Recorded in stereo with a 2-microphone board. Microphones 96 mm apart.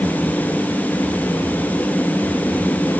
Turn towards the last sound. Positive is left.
No sound to turn to.